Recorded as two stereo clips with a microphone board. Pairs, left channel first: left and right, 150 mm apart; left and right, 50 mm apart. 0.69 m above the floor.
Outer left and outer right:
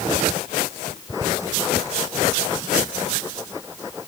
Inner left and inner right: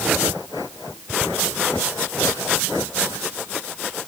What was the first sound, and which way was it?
Only background noise.